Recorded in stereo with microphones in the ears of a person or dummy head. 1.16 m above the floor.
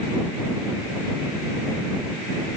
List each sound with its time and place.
Only background noise.